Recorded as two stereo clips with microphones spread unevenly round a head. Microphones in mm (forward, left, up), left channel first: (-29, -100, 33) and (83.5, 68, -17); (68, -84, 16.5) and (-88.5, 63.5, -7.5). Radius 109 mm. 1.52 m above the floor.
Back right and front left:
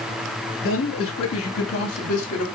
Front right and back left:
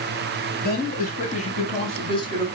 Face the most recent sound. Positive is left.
turn(degrees=-115)